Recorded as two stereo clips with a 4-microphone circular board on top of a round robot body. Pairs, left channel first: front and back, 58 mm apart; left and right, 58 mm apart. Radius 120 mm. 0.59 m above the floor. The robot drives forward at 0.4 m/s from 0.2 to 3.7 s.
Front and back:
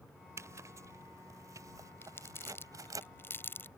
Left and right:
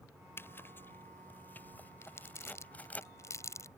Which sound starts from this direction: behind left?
A zipper, at 0.4 s.